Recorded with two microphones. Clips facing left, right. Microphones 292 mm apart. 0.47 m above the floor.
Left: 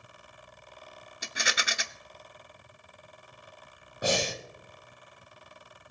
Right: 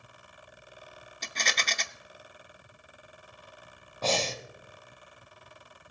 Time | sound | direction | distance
1.2 | a rattle | 10° left (ahead or behind) | 0.6 m
4.0 | breathing | 15° left (ahead or behind) | 1.2 m